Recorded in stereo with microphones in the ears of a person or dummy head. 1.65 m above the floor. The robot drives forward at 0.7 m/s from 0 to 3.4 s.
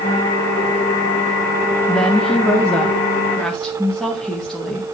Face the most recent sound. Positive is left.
turn(degrees=0)  # may be behind; listen again after turning